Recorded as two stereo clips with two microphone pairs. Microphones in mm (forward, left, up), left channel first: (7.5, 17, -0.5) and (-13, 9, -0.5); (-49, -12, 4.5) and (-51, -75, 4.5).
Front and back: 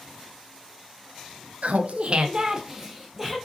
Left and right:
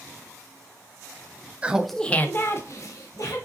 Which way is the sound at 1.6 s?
160° right.